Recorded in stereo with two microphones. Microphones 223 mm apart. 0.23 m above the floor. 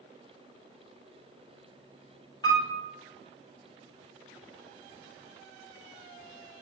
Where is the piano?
20° left (ahead or behind), 0.8 m.